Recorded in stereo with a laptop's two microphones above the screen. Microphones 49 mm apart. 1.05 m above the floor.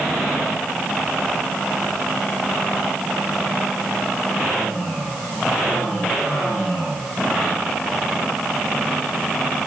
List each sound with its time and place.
Only background noise.